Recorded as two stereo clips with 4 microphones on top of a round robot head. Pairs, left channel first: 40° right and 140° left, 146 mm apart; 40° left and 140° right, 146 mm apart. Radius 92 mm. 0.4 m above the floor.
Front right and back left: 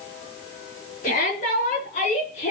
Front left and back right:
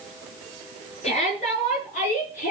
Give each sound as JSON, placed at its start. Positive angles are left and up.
{"t": 1.0, "sound": "a shout", "azimuth_deg": -5, "distance_m": 6.5}